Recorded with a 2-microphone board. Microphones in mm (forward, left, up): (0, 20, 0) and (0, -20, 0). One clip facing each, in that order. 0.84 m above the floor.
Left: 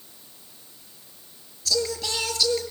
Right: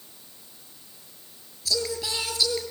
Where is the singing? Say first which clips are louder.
Left 2 dB; 10° right (ahead or behind), 5 m.